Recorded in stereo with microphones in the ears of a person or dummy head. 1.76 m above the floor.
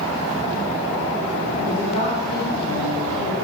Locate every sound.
1.7 s a woman speaking: 35° left (ahead or behind), 1.0 m